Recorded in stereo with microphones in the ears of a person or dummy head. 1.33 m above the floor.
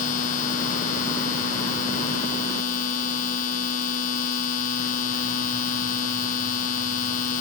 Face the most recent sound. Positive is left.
turn(degrees=45)  # may be behind; listen again after turning